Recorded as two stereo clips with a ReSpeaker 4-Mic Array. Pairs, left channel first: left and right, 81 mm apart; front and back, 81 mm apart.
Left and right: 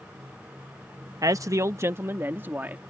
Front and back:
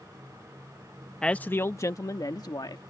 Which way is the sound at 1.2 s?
80° right.